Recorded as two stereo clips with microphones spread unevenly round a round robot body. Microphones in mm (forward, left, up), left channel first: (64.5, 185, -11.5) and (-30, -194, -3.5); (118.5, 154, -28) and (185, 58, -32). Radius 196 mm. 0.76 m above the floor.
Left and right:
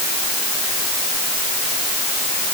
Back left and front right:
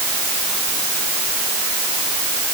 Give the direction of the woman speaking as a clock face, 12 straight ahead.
I don't hear a woman speaking.